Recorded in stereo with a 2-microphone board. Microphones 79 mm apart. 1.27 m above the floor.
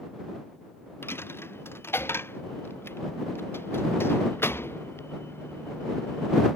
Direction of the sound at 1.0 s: 30° left (ahead or behind).